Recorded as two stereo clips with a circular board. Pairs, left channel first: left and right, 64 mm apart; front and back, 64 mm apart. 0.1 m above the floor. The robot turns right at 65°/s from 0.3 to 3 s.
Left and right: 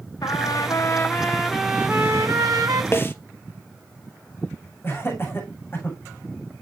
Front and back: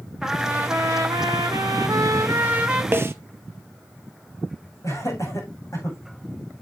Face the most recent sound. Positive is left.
turn(degrees=35)